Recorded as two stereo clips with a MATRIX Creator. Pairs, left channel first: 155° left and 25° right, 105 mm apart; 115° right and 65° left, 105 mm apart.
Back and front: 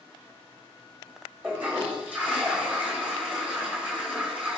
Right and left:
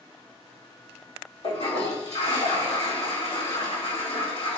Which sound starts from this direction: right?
A toilet flushing, at 1.4 s.